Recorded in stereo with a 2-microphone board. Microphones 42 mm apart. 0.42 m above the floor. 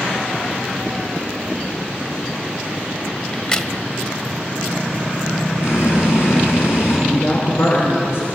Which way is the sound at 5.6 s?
80° left.